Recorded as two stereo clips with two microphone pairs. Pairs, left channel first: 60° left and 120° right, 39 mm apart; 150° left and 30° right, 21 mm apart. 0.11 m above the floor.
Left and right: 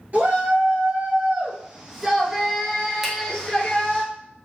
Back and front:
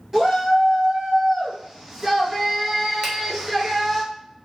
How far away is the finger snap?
About 1.1 m.